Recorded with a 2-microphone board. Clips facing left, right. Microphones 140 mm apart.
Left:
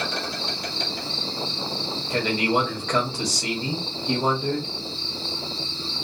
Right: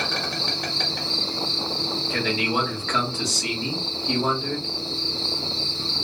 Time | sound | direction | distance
0.0 | an insect | 75° right (ahead or behind) | 1.3 m
2.1 | a man speaking | 15° left (ahead or behind) | 0.9 m